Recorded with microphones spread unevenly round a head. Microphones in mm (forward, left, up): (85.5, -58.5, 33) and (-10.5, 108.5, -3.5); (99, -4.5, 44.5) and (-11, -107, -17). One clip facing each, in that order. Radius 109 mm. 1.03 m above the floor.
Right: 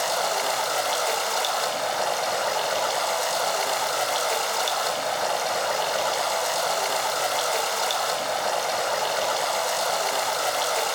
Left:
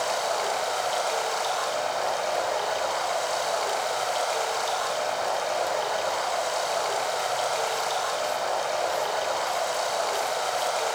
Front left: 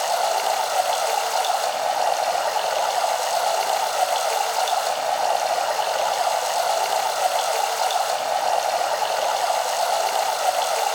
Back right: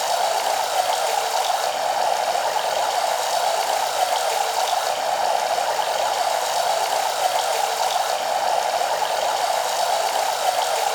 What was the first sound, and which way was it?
Running water, 45° right.